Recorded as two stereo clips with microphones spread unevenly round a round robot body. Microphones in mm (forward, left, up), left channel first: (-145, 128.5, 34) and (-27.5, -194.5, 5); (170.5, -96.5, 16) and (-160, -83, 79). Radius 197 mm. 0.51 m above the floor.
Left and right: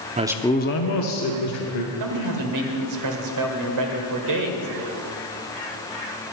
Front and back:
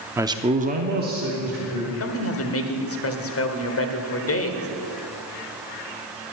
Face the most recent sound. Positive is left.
turn(degrees=-40)